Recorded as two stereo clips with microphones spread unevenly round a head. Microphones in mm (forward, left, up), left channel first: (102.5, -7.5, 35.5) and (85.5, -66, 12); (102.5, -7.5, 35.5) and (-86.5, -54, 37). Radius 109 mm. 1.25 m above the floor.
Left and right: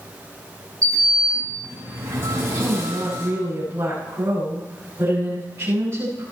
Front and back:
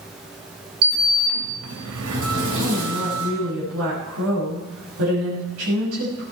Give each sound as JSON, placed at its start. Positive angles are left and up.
{"t": 0.8, "sound": "a sliding door", "azimuth_deg": -170, "distance_m": 4.0}
{"t": 2.6, "sound": "a woman speaking", "azimuth_deg": 180, "distance_m": 7.5}